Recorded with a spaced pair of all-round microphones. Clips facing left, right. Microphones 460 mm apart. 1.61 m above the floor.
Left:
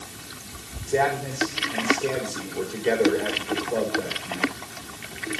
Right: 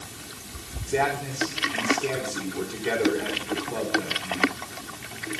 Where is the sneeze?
I don't hear a sneeze.